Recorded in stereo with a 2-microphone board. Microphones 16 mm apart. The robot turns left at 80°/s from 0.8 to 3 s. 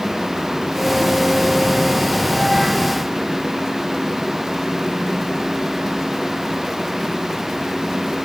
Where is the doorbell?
No doorbell in this recording.